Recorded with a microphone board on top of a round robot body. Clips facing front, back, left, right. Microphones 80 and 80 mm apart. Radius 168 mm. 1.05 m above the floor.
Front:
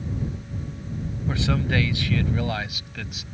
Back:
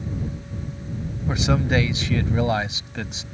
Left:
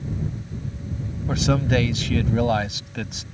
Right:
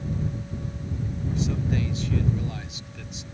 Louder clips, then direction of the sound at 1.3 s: Back 3 dB, left 7 dB; 110° left.